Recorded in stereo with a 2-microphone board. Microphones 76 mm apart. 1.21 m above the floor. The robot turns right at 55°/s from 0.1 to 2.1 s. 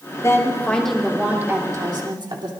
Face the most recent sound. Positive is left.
turn(degrees=-115)